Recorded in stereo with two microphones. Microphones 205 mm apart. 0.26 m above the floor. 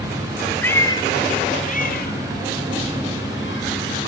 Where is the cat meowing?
10° left (ahead or behind), 1.2 m; by 3.9 s 70° left (ahead or behind), 3 m.